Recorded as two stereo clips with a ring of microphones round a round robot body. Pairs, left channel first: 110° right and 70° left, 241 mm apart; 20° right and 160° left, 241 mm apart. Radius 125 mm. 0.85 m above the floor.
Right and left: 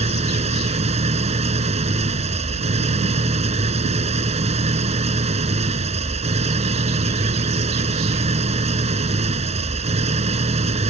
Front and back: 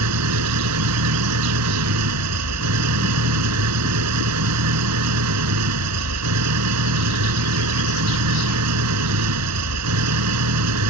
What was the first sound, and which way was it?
An engine running, 135° left.